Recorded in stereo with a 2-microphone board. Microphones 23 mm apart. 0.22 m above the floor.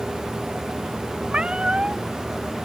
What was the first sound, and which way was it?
A cat meowing, 45° right (ahead or behind).